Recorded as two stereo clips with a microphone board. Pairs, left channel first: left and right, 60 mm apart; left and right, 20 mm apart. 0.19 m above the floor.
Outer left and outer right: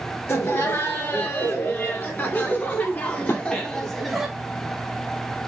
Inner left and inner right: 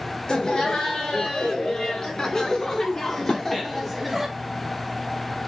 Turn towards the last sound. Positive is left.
turn(degrees=45)  # may be behind; listen again after turning